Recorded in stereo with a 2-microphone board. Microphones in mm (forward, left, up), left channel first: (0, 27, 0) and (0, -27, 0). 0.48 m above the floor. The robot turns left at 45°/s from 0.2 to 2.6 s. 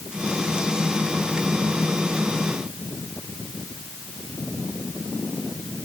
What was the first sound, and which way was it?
Only background noise.